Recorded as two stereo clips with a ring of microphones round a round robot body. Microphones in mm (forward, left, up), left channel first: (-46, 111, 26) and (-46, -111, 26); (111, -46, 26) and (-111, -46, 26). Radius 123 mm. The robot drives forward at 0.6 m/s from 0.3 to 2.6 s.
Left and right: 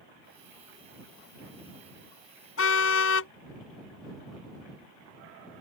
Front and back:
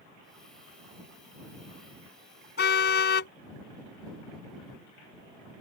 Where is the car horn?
50° left.